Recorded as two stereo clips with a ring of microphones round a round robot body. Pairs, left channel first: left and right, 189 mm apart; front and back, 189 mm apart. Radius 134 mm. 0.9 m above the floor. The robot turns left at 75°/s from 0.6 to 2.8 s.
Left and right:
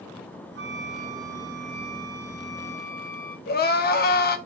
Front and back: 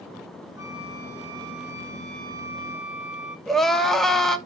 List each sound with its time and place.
0.6 s a flute: 95° right, 1.9 m; by 3.4 s 100° left, 1.9 m
3.5 s crying: 85° left, 1.0 m